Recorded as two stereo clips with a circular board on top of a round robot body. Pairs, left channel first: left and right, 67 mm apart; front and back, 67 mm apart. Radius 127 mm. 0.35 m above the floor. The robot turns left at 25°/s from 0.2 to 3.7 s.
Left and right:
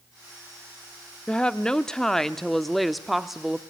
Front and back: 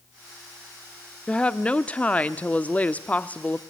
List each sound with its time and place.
1.3 s a woman speaking: 45° left, 0.8 m; by 3.6 s 15° right, 0.8 m